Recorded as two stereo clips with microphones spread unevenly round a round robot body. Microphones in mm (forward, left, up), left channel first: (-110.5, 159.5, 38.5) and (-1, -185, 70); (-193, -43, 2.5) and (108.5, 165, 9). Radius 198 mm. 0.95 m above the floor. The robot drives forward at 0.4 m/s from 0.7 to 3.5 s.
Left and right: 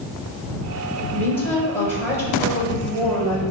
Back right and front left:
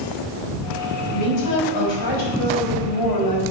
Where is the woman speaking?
170° right, 4 m.